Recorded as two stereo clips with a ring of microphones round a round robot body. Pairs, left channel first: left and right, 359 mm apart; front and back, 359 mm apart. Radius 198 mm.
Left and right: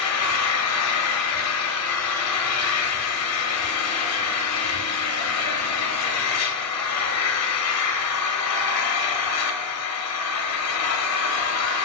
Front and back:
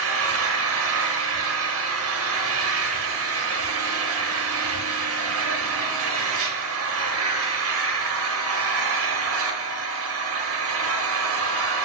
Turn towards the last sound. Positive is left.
turn(degrees=130)